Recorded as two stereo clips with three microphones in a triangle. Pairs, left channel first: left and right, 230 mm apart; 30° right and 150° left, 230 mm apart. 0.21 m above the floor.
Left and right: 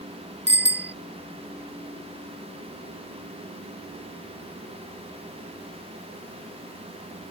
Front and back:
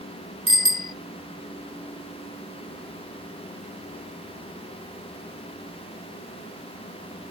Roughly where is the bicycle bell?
Ahead right.